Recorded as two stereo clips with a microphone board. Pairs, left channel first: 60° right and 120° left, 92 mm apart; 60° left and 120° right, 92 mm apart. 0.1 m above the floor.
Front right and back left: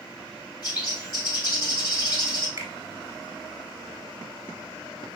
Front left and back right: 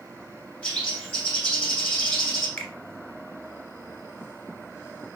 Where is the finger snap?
120° left, 1.5 m.